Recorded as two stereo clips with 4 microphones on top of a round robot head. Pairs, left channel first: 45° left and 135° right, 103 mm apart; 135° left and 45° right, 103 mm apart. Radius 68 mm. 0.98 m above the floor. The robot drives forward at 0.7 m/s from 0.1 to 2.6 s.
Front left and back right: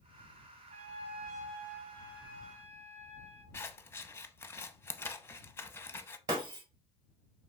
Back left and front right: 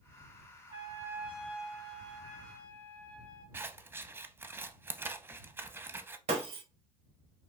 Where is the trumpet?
100° right, 0.9 m; by 3.4 s 150° right, 1.7 m.